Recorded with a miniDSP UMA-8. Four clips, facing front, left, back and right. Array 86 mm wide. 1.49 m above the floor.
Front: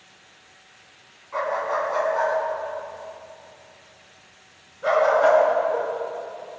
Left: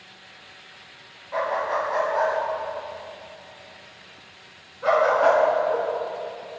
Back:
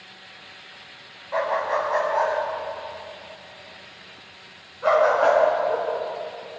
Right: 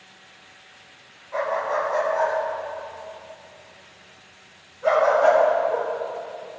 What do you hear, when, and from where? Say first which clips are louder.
1.3 s a dog barking: even, back 1 dB; 170° left, 4 m; by 5.9 s 155° left, 7 m